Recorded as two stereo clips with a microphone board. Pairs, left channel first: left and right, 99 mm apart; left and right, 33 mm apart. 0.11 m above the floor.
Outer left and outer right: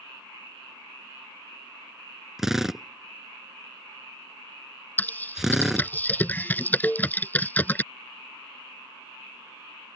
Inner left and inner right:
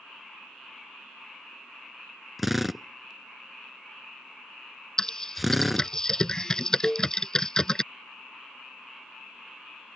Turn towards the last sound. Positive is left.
turn(degrees=15)  # may be behind; listen again after turning